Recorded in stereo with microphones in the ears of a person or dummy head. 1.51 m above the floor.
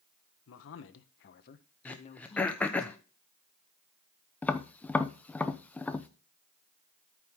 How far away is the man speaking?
About 1.1 m.